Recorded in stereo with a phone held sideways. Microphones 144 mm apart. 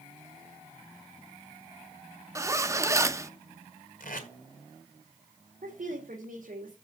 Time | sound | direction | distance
2.4 | a zipper | 20° right (ahead or behind) | 0.7 m
4.0 | tape being pulled | 70° left (ahead or behind) | 2 m
5.6 | a woman speaking | 70° right (ahead or behind) | 2.5 m